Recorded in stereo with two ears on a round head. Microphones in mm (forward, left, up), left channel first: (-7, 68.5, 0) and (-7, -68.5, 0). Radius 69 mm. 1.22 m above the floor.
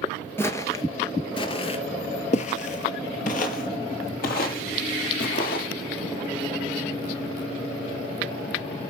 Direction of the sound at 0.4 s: 15° left (ahead or behind).